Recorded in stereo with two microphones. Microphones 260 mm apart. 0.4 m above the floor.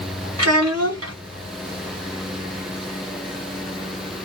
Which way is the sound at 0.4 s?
70° right (ahead or behind).